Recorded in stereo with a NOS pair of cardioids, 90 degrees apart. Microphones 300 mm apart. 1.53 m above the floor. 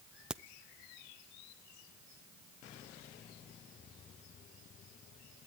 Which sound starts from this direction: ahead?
A crack, at 0.3 s.